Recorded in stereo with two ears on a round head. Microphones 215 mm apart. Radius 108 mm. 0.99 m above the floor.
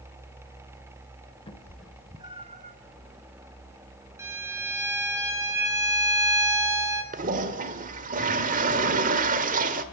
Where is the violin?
10° right (ahead or behind), 4.5 m.